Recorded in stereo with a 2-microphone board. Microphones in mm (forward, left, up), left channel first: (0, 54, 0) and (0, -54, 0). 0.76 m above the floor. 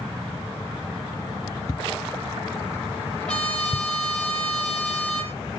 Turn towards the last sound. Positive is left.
turn(degrees=10)  # may be behind; listen again after turning